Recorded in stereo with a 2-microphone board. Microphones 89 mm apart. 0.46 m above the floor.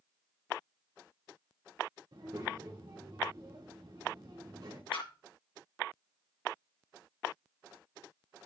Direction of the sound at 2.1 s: 65° right (ahead or behind).